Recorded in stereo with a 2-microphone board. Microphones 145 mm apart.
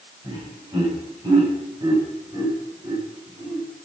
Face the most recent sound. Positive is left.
turn(degrees=-30)  # may be behind; listen again after turning